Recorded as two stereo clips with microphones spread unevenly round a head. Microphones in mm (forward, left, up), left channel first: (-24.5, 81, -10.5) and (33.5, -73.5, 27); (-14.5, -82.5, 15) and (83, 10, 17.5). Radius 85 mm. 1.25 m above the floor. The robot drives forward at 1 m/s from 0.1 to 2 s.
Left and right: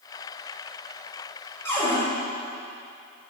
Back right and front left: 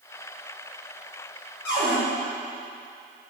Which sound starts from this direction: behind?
A cupboard door, at 1.6 s.